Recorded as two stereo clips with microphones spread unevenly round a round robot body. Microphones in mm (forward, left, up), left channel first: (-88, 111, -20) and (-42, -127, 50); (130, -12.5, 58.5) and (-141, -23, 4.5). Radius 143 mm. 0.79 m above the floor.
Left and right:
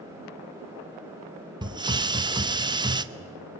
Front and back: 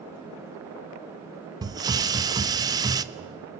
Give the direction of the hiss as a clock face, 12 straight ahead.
6 o'clock.